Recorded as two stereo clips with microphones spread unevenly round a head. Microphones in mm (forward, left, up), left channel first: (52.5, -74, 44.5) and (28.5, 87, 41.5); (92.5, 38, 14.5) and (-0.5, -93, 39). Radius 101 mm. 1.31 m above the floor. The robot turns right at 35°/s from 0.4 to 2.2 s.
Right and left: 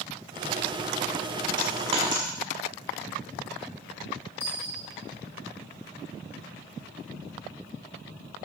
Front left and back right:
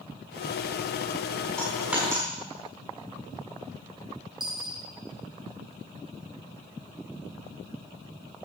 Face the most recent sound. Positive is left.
turn(degrees=-70)